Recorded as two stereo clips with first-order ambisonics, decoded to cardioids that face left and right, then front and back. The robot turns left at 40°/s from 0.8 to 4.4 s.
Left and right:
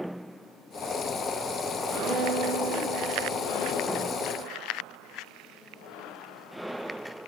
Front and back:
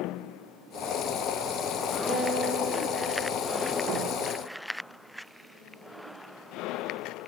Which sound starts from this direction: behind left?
A guitar, at 2.1 s.